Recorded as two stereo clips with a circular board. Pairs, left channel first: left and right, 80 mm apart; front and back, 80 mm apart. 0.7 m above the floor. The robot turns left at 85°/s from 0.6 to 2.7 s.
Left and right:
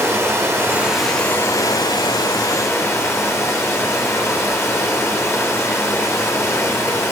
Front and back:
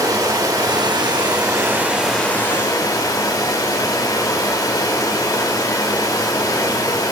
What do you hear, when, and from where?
0.0 s running water: 145° right, 1.0 m; by 7.1 s 35° left, 1.0 m